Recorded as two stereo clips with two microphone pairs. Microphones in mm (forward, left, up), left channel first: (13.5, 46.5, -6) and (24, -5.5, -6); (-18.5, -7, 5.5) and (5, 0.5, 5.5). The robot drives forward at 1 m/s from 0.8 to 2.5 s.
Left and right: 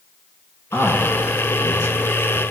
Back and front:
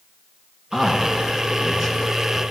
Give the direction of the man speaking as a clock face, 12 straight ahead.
9 o'clock.